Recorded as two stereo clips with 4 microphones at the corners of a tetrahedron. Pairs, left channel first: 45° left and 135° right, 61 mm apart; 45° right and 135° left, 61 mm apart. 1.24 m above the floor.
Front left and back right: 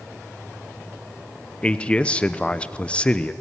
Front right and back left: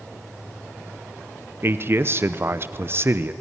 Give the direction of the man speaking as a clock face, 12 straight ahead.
8 o'clock.